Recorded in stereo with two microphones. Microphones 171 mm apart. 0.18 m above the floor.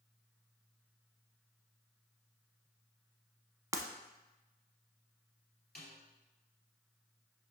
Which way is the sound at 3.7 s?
20° right (ahead or behind).